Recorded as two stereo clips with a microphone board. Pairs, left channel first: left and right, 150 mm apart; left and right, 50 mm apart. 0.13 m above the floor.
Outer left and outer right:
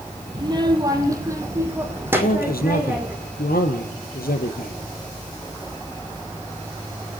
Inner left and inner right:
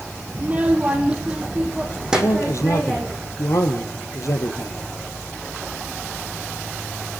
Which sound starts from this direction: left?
A man speaking, at 2.1 s.